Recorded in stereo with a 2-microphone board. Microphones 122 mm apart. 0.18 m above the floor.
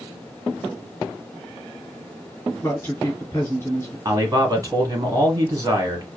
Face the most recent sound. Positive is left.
turn(degrees=-30)  # may be behind; listen again after turning